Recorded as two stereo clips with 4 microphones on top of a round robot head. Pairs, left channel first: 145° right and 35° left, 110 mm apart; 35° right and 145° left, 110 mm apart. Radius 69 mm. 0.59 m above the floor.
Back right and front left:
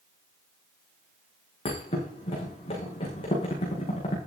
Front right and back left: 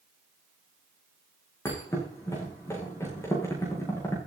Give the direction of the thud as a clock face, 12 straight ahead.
3 o'clock.